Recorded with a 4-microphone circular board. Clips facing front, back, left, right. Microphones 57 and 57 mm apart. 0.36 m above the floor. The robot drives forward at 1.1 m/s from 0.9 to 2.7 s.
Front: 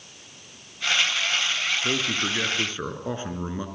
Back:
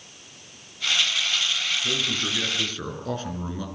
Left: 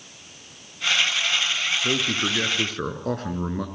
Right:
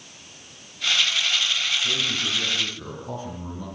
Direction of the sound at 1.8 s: 55° left.